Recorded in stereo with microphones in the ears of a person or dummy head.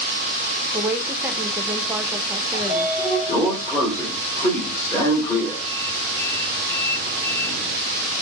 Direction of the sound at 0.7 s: 10° right (ahead or behind).